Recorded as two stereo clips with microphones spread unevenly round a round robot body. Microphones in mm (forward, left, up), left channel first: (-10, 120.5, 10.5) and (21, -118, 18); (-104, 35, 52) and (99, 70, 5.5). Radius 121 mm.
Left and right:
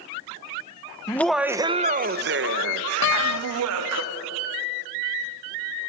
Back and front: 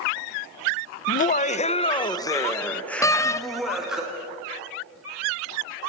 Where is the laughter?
160° left, 0.7 m; by 4.0 s 70° right, 1.8 m.